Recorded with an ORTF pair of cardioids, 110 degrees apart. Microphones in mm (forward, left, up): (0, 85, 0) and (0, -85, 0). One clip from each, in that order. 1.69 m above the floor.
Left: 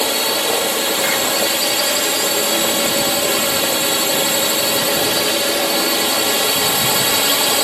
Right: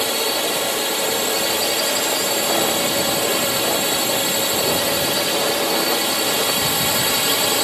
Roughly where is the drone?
Ahead.